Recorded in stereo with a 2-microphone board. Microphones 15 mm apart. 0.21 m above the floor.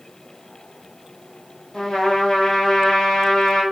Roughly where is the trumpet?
Left.